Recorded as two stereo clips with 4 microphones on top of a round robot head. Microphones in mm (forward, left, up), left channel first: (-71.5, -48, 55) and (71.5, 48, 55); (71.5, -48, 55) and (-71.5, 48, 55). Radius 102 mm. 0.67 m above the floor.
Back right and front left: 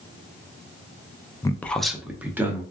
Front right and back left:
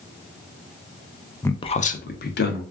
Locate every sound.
1.4 s a man speaking: 100° right, 0.5 m; by 2.6 s 45° right, 1.2 m